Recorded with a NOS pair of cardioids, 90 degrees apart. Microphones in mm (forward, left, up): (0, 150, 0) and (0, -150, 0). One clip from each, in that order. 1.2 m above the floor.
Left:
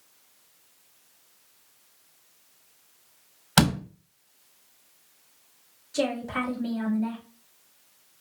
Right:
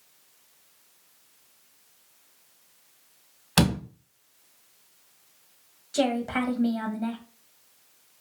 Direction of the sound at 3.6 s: 10° left.